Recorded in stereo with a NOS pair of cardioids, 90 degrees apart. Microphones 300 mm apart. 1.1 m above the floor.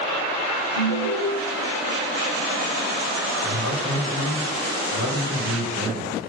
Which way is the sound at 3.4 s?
50° left.